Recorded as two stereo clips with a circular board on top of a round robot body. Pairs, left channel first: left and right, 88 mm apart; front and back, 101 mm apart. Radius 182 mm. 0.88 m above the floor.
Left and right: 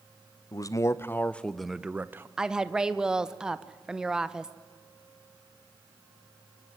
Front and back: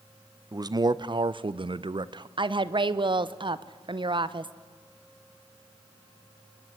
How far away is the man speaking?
About 1.1 m.